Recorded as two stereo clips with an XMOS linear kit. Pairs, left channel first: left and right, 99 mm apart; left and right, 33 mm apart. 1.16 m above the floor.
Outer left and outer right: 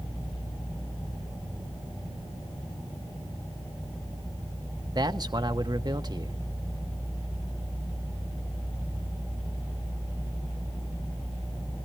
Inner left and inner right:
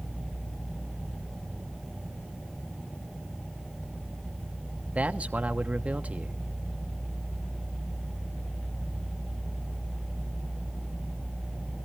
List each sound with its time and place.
5.0 s a man speaking: 40° right (ahead or behind), 1.1 m